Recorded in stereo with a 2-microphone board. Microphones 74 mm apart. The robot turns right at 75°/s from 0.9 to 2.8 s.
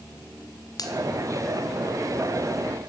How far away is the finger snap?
About 1.6 m.